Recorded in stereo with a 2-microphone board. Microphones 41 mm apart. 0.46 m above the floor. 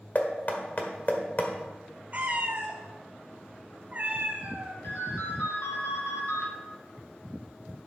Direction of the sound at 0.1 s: 40° left (ahead or behind).